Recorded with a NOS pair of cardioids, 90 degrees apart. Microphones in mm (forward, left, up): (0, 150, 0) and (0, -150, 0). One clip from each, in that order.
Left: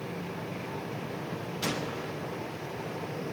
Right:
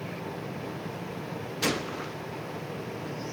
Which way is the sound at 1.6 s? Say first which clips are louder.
Right 4 dB; 35° right.